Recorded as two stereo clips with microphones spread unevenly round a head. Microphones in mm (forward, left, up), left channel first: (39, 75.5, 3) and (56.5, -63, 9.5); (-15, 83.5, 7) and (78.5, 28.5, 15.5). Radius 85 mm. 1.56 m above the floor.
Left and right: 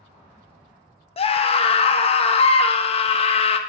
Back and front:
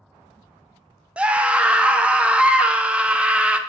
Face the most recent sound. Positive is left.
turn(degrees=50)